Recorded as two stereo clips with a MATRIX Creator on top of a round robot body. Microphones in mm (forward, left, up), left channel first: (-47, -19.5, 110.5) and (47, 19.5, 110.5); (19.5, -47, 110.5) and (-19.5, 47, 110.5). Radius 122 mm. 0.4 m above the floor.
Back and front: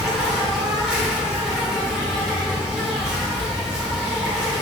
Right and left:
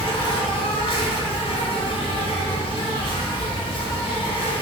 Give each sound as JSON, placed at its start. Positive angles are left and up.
{"t": 0.0, "sound": "an insect", "azimuth_deg": -60, "distance_m": 1.0}